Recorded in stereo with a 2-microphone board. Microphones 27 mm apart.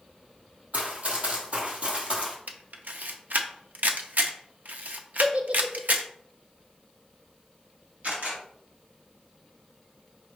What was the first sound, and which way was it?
Running footsteps, 55° right (ahead or behind).